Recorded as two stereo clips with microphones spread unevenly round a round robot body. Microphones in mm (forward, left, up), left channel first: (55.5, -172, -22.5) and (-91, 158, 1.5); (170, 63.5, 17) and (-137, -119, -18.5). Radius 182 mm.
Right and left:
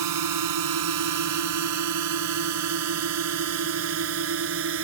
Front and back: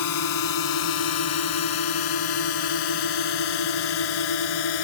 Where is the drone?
75° left; by 4.8 s 55° left.